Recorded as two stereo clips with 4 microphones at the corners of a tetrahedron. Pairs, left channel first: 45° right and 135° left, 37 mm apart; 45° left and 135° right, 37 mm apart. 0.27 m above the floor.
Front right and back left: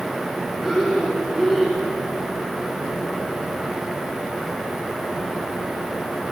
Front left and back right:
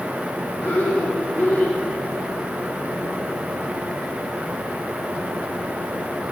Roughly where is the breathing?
Ahead left.